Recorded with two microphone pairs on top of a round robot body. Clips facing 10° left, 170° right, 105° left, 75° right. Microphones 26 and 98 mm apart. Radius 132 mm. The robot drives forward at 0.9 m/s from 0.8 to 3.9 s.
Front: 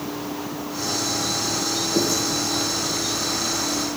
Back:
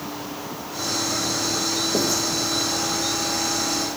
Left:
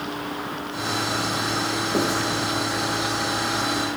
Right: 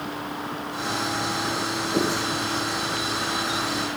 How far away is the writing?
About 4.5 m.